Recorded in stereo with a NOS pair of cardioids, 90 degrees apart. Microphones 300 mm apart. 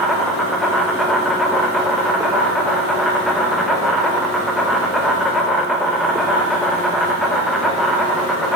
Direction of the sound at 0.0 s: Straight ahead.